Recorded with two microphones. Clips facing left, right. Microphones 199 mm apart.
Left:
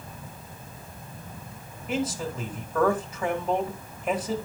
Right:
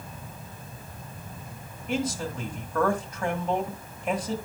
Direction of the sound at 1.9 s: 5° left (ahead or behind).